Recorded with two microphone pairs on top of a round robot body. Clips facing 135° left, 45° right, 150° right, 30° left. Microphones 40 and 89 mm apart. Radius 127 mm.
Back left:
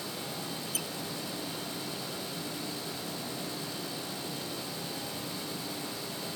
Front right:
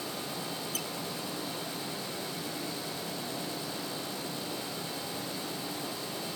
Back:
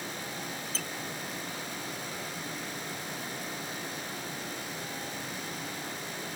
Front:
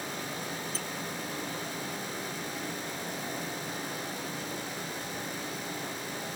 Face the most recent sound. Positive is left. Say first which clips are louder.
# front right 1 dB, front 1 dB
turn(degrees=-140)